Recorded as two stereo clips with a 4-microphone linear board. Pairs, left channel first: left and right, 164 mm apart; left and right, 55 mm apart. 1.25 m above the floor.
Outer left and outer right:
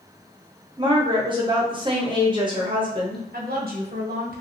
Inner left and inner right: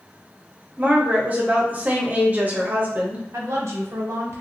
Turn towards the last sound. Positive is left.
turn(degrees=-65)  # may be behind; listen again after turning